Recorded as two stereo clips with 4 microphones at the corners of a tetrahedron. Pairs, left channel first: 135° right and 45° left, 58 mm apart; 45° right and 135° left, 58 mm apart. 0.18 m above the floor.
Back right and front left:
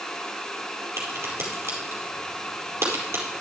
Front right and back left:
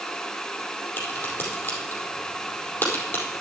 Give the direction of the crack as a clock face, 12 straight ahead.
12 o'clock.